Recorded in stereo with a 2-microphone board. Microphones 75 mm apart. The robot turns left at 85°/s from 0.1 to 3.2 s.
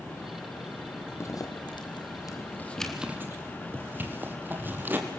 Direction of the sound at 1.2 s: 35° left (ahead or behind).